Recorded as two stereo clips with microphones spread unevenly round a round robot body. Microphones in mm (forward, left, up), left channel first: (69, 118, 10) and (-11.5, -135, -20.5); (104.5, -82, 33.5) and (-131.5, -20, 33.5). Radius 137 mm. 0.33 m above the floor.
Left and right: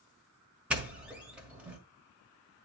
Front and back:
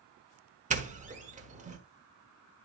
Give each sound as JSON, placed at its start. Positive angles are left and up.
{"t": 0.7, "sound": "a doorbell", "azimuth_deg": 180, "distance_m": 1.5}